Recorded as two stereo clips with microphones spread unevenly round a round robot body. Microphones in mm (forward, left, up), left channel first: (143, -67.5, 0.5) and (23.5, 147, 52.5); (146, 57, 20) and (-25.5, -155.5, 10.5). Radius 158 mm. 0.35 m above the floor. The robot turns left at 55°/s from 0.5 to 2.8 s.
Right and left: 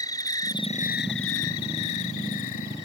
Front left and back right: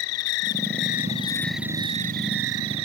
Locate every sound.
0.0 s an insect: 20° left; by 2.9 s 110° right